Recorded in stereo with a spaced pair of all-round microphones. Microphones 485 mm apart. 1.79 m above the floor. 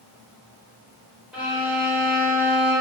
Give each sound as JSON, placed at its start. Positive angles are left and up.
{"t": 1.3, "sound": "a violin", "side_deg": 0, "distance_m": 1.7}